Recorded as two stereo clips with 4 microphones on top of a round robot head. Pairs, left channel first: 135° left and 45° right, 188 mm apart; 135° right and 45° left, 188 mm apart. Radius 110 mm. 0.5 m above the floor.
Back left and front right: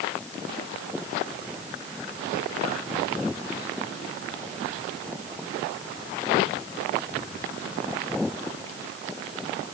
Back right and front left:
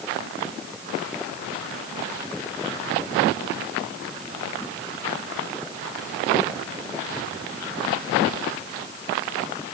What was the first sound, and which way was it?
Only background noise.